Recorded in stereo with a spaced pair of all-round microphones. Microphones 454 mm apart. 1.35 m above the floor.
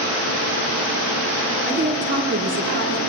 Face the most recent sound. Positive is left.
turn(degrees=-30)  # may be behind; listen again after turning